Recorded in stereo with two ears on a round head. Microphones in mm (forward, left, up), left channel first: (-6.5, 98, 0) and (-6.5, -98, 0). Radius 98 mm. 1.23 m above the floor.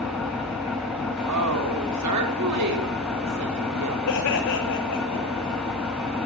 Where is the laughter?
70° left (ahead or behind), 3 m.